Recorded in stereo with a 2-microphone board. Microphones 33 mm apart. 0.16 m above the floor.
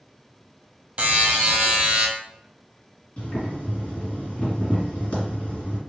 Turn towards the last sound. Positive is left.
turn(degrees=40)  # may be behind; listen again after turning